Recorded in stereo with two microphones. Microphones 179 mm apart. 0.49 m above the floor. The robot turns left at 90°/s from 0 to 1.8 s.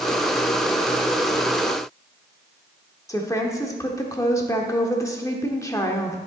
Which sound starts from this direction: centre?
A woman speaking, at 3.1 s.